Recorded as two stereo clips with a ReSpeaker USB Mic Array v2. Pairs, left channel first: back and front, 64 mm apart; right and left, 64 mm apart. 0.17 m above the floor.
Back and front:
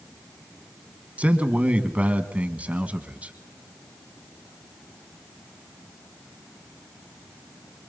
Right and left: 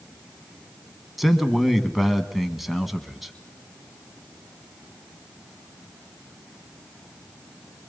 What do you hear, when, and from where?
1.2 s a man speaking: 5° left, 1.4 m